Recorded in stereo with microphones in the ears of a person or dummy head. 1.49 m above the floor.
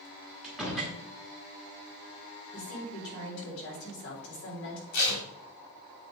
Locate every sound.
0.4 s a door slam: 5° right (ahead or behind), 1.7 m
2.5 s a woman speaking: 70° left (ahead or behind), 4 m
4.9 s tape being pulled: 60° left (ahead or behind), 2 m